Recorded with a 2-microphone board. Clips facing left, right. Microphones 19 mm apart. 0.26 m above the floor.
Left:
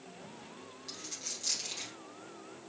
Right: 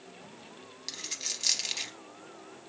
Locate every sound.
0.9 s a dropped coin: 65° right (ahead or behind), 0.6 m